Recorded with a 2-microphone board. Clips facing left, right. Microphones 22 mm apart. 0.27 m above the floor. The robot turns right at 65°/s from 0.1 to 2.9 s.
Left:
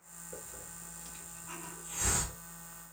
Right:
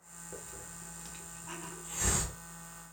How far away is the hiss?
About 1.8 m.